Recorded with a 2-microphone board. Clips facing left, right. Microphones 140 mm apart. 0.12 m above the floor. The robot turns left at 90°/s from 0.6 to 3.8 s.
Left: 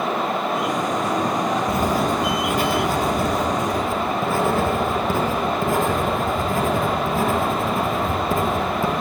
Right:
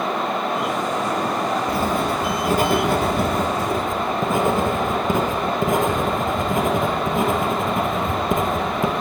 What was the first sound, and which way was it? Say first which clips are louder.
Writing: left 1 dB; 30° left.